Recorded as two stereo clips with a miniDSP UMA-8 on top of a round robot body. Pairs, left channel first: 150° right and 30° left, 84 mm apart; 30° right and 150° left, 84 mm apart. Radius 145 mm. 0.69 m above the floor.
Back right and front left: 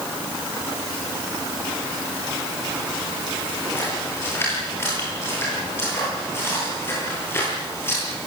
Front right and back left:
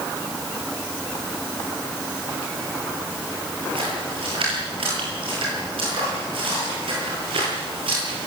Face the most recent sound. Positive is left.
turn(degrees=145)